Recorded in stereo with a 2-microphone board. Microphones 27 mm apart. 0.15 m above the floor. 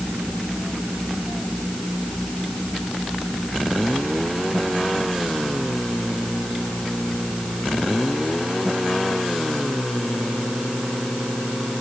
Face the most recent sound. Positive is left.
No sound to turn to.